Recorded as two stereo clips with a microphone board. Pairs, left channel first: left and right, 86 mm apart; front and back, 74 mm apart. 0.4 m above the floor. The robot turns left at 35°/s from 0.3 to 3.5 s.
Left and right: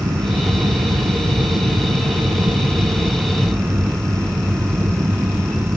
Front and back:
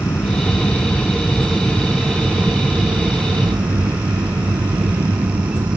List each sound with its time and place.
0.0 s an aircraft: 45° right; by 5.8 s 155° right